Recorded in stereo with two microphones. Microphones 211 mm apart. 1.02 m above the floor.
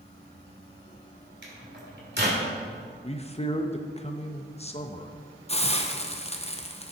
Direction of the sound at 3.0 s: 30° left (ahead or behind).